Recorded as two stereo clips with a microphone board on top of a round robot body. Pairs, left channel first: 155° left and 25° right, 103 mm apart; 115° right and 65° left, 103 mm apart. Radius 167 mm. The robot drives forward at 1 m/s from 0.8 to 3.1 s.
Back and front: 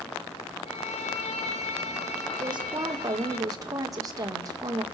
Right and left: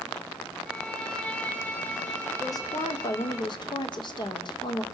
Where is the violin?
165° left, 1.8 m; by 3.4 s 175° left, 4 m.